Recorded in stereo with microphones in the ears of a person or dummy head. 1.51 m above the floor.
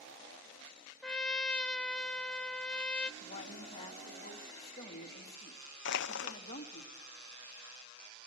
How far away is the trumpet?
About 0.7 m.